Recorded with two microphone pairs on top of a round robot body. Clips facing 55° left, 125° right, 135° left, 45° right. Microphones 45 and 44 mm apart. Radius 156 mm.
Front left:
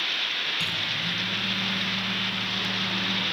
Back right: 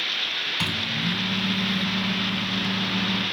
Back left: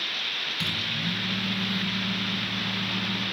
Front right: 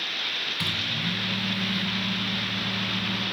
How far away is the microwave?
About 3 m.